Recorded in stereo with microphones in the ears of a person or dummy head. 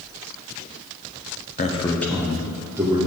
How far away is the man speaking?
About 0.9 m.